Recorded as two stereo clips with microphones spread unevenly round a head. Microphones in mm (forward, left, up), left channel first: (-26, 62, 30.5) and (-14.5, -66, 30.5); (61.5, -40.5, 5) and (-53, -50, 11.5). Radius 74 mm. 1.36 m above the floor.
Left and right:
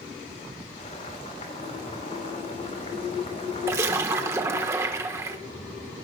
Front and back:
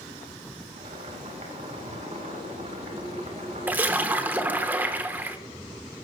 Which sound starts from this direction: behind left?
Boiling, at 0.8 s.